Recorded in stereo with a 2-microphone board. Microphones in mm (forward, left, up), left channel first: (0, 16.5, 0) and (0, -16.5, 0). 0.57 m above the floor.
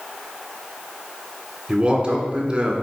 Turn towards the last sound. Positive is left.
turn(degrees=-25)  # may be behind; listen again after turning